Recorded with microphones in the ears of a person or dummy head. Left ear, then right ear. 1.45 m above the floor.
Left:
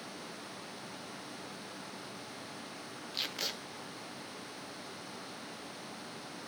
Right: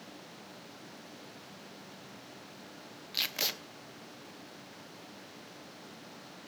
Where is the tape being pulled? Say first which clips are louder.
Right 4 dB; 15° right (ahead or behind), 0.9 m.